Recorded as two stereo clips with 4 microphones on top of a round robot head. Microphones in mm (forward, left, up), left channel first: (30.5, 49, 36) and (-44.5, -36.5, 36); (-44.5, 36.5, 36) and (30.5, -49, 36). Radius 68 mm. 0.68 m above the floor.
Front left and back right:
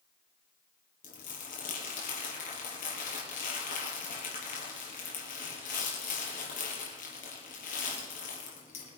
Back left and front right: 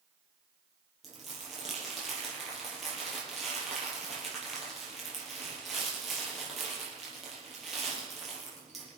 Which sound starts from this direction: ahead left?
Crumpling, at 1.0 s.